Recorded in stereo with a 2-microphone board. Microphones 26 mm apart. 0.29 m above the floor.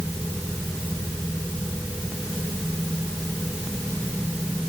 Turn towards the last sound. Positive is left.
No sound to turn to.